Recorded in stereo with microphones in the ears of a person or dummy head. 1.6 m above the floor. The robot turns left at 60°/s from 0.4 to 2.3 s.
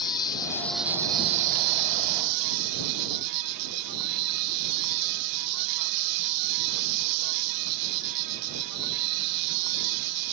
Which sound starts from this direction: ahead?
An insect, at 0.0 s.